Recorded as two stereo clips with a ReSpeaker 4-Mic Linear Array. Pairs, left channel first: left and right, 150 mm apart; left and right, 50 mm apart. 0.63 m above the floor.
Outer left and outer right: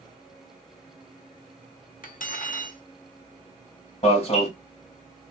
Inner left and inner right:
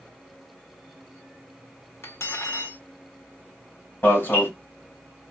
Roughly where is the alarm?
Left.